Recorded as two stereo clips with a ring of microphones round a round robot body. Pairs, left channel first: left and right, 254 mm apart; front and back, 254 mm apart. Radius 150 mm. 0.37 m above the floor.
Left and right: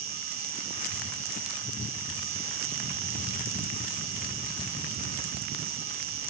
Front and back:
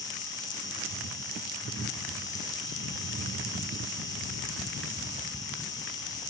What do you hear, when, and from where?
0.0 s an insect: 75° right, 1.9 m